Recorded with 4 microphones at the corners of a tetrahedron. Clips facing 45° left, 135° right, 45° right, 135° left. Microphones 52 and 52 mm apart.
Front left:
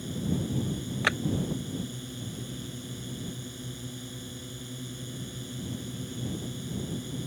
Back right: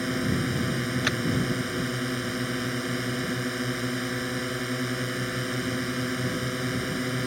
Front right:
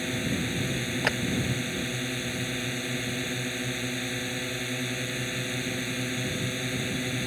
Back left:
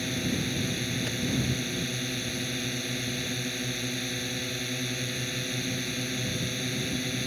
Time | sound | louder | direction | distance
0.0 | a drone | back right 6 dB, front right 1 dB | 125° right | ?
1.0 | a clap | front left 3 dB, front right 7 dB | 30° right | ?